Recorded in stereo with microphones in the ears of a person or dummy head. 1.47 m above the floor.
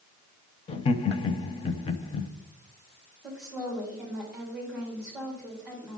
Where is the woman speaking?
5° right (ahead or behind), 2.5 m.